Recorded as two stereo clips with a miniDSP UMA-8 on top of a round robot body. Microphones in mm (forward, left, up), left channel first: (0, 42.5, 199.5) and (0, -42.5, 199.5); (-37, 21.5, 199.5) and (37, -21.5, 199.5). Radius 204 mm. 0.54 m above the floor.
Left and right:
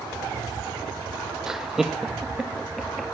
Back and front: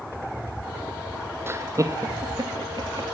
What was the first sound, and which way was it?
Laughter, 15° right.